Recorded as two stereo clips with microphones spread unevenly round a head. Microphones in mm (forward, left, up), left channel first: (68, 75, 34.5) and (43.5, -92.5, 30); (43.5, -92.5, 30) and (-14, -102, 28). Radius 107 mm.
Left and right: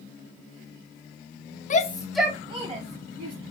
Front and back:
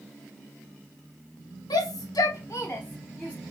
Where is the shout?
35° left, 0.6 m; by 3.3 s 60° right, 1.4 m.